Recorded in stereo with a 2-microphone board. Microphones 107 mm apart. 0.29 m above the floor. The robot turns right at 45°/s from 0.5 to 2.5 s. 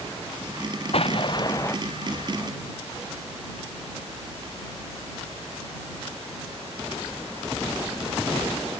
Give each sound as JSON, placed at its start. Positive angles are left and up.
{"t": 0.9, "sound": "an explosion", "azimuth_deg": 120}